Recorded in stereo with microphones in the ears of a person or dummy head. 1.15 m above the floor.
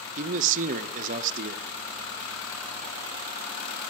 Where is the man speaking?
40° right (ahead or behind), 0.5 m.